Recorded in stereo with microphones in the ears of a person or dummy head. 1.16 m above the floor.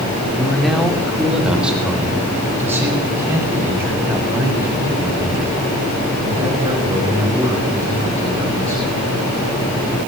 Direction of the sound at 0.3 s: Centre (ahead or behind).